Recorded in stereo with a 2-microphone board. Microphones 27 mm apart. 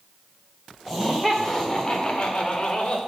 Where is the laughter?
5° left (ahead or behind), 1.8 m; by 3.0 s 40° left (ahead or behind), 1.6 m.